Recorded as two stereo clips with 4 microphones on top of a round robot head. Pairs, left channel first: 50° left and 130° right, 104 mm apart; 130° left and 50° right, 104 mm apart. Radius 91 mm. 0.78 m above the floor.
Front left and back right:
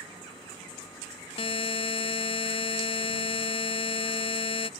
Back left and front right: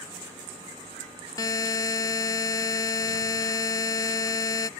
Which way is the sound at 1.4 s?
75° left.